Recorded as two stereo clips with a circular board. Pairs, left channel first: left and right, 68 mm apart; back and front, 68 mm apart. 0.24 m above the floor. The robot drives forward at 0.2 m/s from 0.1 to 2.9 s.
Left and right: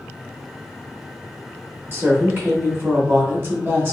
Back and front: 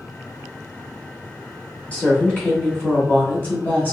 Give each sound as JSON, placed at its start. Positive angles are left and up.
{"t": 1.9, "sound": "a woman speaking", "azimuth_deg": -120, "distance_m": 1.8}